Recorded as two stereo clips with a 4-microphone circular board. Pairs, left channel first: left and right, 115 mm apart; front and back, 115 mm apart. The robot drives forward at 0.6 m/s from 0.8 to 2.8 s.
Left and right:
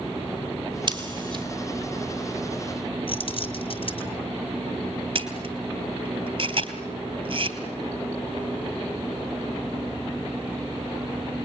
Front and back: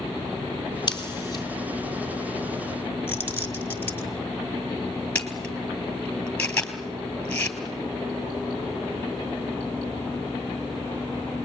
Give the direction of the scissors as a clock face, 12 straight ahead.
2 o'clock.